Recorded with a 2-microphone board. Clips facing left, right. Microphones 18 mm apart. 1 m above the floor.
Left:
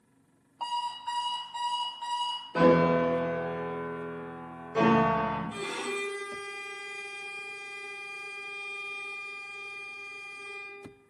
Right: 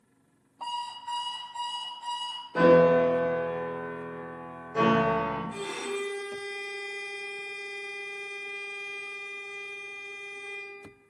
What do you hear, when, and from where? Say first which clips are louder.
0.6 s an alarm clock: left 2 dB; 55° left (ahead or behind), 1.1 m
2.5 s a piano: right 3 dB; 15° left (ahead or behind), 0.9 m
5.5 s a violin: even; 50° left (ahead or behind), 1.2 m